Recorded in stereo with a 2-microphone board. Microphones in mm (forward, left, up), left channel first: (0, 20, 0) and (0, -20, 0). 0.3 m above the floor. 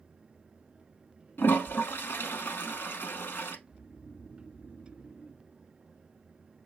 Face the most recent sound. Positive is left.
turn(degrees=50)  # may be behind; listen again after turning